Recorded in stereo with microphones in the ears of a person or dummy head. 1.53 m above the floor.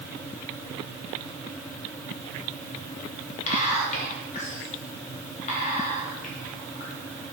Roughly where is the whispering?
Left.